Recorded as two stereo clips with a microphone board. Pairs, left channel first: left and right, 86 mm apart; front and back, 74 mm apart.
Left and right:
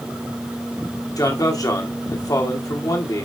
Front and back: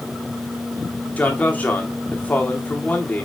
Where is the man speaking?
65° left, 1.8 m.